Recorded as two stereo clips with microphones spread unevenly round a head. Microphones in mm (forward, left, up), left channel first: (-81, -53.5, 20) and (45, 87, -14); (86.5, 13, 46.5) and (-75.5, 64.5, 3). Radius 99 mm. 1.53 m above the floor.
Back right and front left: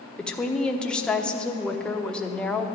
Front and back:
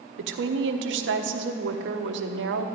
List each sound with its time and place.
0.2 s a woman speaking: 145° left, 0.9 m